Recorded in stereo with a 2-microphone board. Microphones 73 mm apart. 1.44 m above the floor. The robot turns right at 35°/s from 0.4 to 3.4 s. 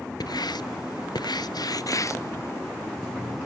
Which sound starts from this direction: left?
Writing, at 0.2 s.